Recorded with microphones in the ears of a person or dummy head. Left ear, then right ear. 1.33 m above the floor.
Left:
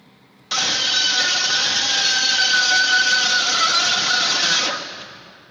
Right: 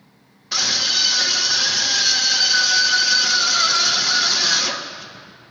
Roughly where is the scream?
Left.